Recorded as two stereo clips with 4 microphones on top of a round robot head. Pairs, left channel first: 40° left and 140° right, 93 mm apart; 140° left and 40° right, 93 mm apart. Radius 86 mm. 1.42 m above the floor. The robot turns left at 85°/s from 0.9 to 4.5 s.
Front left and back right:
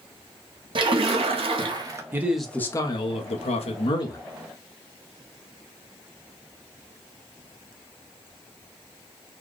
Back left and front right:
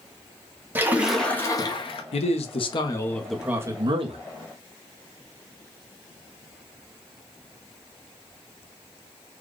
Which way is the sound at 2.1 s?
155° left.